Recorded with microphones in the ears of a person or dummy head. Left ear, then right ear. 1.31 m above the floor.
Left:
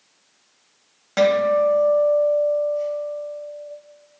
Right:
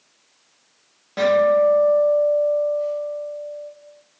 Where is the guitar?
50° left (ahead or behind), 1.0 m.